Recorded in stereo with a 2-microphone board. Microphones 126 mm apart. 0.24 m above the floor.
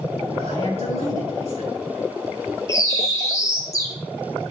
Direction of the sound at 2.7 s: 25° left (ahead or behind).